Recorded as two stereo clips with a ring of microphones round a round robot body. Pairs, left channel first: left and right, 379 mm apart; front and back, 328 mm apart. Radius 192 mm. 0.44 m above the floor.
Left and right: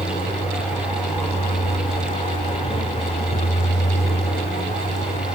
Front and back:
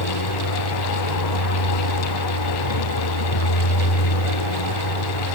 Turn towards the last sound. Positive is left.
turn(degrees=15)